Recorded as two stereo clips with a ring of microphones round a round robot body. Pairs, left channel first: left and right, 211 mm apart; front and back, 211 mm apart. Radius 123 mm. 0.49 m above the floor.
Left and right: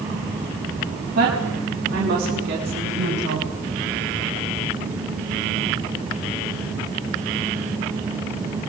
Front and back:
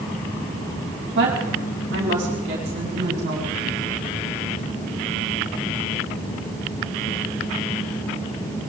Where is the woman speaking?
135° right, 5 m; by 3.5 s 130° right, 6 m.